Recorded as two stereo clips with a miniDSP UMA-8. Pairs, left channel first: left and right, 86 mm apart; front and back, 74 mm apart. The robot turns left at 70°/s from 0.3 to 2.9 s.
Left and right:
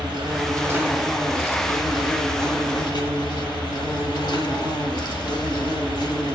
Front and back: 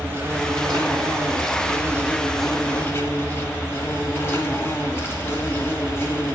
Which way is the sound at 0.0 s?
125° right.